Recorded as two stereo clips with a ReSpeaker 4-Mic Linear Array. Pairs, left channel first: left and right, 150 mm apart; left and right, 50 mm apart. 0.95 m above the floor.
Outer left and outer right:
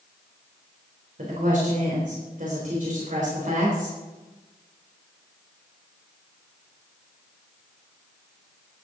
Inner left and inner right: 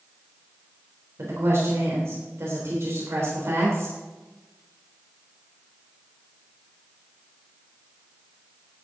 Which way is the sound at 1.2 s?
55° right (ahead or behind).